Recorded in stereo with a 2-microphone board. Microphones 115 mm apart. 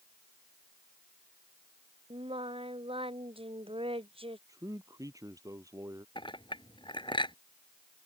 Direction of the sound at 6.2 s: 45° left (ahead or behind).